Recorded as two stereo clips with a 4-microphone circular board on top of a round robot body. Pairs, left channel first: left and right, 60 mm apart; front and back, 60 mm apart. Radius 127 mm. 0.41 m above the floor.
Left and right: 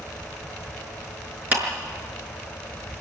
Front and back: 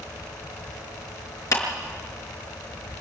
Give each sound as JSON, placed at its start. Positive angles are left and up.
{"t": 1.5, "sound": "a clap", "azimuth_deg": -30, "distance_m": 5.5}